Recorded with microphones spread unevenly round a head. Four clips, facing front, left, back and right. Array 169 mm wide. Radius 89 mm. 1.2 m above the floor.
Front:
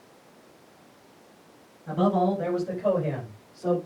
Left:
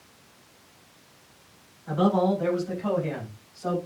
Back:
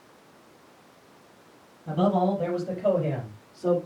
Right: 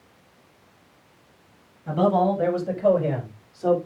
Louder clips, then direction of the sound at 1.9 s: Right 2 dB, even; 125° right.